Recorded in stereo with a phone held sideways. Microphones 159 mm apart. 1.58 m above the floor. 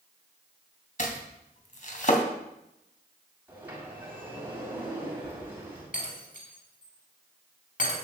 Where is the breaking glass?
60° left (ahead or behind), 6 m.